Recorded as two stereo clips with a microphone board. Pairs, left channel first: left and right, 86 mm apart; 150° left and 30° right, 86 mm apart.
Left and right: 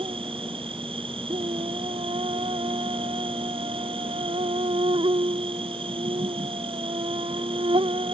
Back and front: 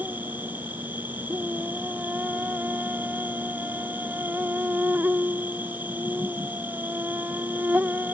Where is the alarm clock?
I don't hear an alarm clock.